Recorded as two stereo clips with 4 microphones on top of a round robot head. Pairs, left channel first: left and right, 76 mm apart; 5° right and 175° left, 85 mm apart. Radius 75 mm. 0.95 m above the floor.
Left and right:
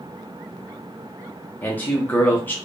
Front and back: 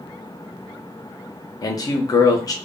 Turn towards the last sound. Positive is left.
turn(degrees=30)